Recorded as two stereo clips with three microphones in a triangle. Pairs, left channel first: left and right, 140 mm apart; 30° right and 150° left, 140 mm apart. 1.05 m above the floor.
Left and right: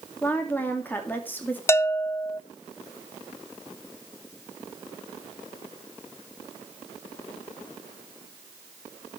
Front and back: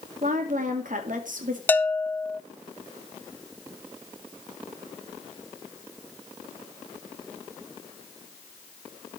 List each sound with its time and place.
0.2 s a woman speaking: 165° left, 2.5 m
1.7 s a bell: 35° left, 0.5 m